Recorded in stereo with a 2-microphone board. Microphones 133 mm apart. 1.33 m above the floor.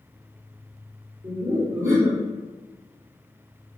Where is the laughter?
20° right (ahead or behind), 1.9 m.